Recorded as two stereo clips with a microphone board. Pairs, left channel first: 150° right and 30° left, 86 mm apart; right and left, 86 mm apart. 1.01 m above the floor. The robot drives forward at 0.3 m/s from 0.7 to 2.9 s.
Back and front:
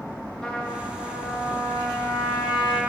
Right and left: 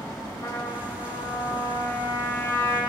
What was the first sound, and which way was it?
A trumpet, 75° right.